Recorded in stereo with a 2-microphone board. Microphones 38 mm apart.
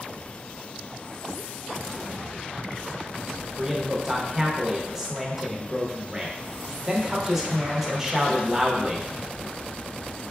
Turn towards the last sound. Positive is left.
turn(degrees=-10)  # may be behind; listen again after turning